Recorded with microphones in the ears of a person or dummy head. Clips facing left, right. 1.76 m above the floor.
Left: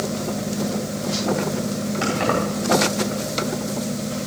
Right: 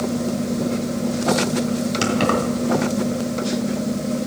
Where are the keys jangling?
45° right (ahead or behind), 3.5 m.